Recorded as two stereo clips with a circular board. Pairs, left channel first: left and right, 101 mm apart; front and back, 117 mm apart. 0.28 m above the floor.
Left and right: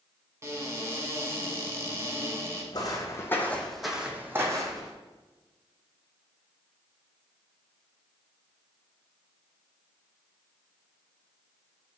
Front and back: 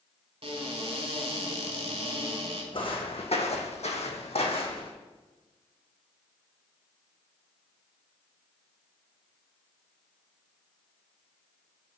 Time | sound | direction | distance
0.4 | a cupboard door | 150° right | 0.8 m
2.7 | footsteps | 40° left | 0.9 m